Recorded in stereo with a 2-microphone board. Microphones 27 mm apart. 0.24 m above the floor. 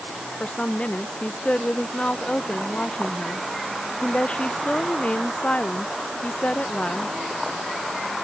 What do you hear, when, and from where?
0.4 s a woman speaking: 55° left (ahead or behind)